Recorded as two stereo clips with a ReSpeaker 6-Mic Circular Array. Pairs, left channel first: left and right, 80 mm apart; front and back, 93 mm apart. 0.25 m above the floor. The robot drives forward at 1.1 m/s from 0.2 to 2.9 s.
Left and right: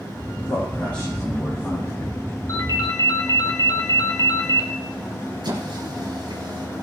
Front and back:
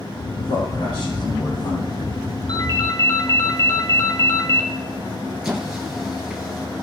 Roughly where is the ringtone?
Ahead left.